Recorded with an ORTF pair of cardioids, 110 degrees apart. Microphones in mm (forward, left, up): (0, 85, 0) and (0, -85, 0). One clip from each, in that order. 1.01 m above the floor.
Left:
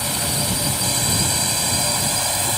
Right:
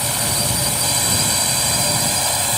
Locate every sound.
0.0 s a drone: 20° right; by 2.6 s 15° right